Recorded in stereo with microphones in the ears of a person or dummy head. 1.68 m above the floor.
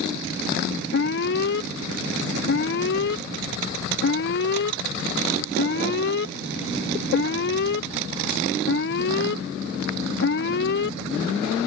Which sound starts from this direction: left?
An alarm, at 0.9 s.